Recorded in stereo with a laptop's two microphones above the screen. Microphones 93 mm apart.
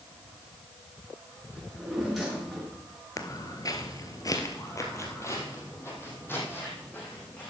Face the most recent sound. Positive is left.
turn(degrees=20)  # may be behind; listen again after turning